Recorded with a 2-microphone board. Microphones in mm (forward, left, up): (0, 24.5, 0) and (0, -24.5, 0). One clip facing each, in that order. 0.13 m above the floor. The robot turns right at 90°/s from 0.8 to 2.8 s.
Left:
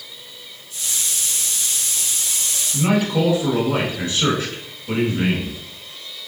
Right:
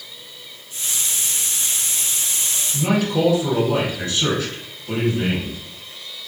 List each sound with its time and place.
2.7 s a man speaking: 25° left (ahead or behind), 1.2 m